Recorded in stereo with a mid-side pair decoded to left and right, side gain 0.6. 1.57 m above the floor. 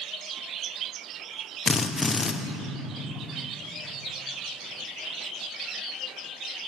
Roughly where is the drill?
Ahead.